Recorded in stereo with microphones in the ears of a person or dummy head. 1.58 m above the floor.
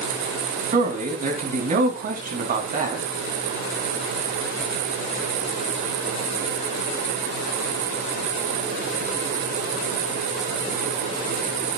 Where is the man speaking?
50° right (ahead or behind), 2.5 m.